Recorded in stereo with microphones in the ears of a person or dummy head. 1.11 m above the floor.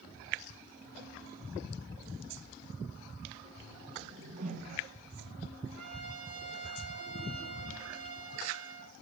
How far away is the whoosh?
About 1.5 m.